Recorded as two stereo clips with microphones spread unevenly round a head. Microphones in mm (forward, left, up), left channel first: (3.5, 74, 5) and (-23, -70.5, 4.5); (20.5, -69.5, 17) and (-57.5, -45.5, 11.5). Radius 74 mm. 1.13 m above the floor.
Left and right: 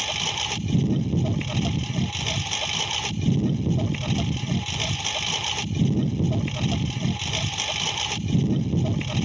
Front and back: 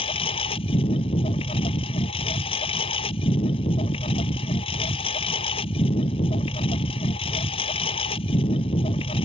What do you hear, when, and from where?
0.0 s a lawn mower: 10° right